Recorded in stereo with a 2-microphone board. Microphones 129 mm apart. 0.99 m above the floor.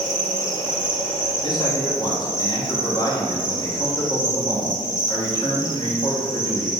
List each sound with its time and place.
0.0 s an insect: 80° right, 1.5 m
1.4 s a man speaking: 35° left (ahead or behind), 1.9 m